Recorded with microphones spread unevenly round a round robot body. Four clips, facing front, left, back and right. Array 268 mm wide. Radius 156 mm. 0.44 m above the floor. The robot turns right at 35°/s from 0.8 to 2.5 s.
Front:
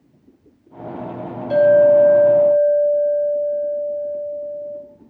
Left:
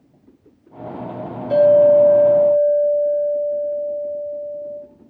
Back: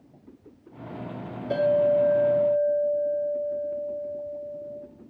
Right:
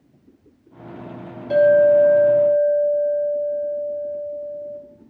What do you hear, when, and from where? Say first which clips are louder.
1.5 s a clink: left 2 dB, front 10 dB; 130° right, 2.5 m; by 4.8 s 95° right, 2.5 m